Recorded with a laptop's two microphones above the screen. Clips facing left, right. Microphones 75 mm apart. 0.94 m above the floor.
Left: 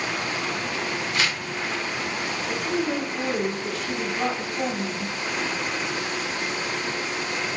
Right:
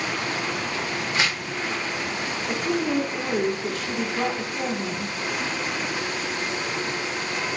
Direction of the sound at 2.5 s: 60° right (ahead or behind).